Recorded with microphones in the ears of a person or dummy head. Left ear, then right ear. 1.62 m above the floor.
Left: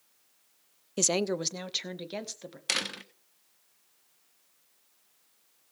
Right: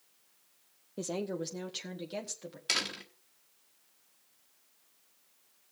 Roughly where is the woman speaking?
Left.